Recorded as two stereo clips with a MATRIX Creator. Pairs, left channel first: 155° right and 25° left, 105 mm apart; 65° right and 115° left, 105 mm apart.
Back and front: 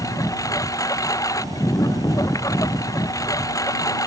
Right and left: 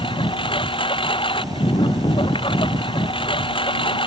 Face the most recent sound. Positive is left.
turn(degrees=-100)